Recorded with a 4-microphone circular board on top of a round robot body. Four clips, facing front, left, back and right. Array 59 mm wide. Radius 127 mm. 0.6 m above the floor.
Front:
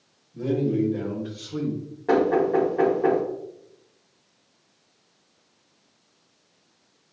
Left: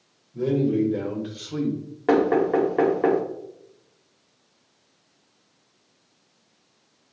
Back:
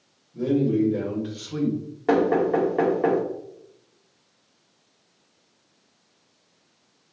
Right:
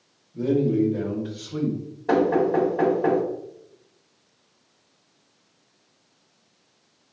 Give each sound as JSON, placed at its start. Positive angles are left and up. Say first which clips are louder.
{"t": 0.3, "sound": "a man speaking", "louder": "right 1 dB, back 2 dB", "azimuth_deg": 100, "distance_m": 3.0}
{"t": 2.1, "sound": "knocking", "louder": "left 1 dB, even", "azimuth_deg": 110, "distance_m": 2.5}